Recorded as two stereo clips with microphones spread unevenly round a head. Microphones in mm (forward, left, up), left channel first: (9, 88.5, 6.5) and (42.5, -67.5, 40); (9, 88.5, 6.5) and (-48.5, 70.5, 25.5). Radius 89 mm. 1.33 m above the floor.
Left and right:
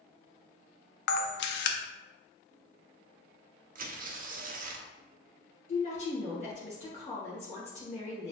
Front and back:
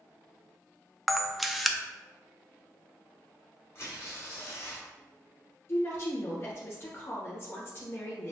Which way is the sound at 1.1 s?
105° left.